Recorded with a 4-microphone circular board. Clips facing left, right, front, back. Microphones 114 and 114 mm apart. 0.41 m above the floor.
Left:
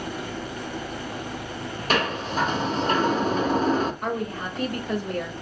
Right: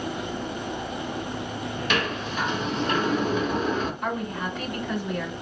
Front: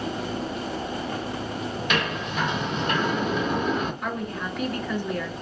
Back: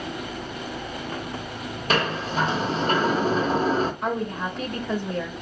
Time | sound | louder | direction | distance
1.9 | a sliding door | left 4 dB, back 5 dB | 135° left | 0.9 m
4.0 | a woman speaking | left 1 dB, back 3 dB | 125° left | 2.0 m